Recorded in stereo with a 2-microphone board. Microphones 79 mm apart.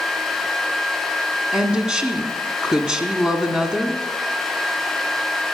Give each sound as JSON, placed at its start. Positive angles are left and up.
{"t": 1.5, "sound": "a woman speaking", "side_deg": -10, "distance_m": 1.2}